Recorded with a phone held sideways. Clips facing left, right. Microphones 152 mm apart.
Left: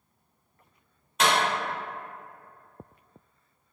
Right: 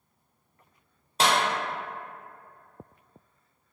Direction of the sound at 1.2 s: 35° right (ahead or behind).